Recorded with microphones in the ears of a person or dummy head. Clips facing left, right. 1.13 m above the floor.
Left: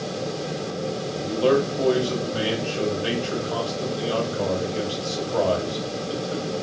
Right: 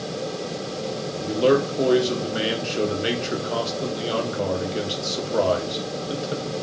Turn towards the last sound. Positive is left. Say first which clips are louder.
# right 1 dB
turn(degrees=-25)  # may be behind; listen again after turning